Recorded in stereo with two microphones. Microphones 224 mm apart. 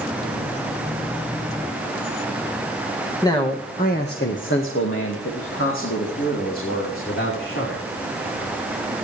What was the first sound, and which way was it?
A man speaking, 15° left (ahead or behind).